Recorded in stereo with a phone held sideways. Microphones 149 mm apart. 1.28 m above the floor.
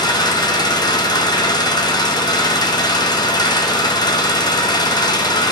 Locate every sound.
0.0 s an engine running: 25° left (ahead or behind), 0.9 m